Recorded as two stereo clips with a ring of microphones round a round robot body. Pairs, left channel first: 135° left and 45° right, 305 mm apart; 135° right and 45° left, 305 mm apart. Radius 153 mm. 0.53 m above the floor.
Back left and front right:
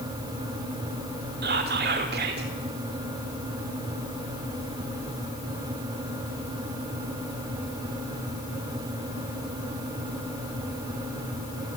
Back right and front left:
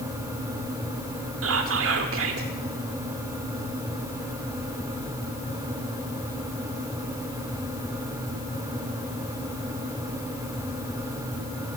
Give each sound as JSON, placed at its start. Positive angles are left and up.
{"t": 1.4, "sound": "whispering", "azimuth_deg": 5, "distance_m": 1.4}